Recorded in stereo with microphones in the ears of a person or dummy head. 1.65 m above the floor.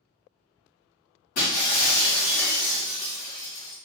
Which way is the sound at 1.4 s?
40° left (ahead or behind).